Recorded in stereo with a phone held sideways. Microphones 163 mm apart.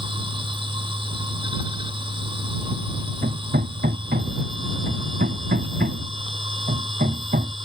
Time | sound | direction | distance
0.0 | a machine running | 30° right (ahead or behind) | ?
3.2 | hammering | 70° right (ahead or behind) | ?